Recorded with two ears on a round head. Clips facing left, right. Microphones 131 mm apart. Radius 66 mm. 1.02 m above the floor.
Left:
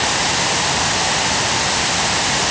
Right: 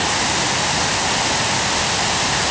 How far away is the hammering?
No hammering in this recording.